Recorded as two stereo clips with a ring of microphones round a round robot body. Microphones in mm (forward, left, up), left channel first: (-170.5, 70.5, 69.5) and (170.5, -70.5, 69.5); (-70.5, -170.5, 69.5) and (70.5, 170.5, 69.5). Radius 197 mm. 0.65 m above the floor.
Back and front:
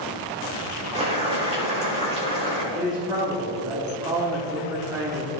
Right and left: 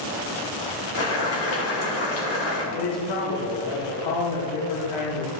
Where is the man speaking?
100° right, 1.3 m.